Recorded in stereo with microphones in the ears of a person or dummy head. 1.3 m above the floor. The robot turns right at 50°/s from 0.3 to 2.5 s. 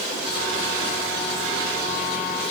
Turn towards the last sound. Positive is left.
No sound to turn to.